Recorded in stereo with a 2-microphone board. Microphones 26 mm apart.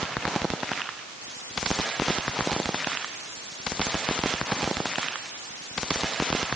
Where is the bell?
I don't hear a bell.